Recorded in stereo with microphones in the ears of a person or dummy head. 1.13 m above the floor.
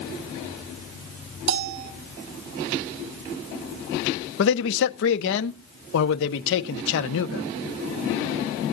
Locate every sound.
1.5 s a bell: 60° right (ahead or behind), 1.7 m
4.4 s a man speaking: 70° left (ahead or behind), 1.3 m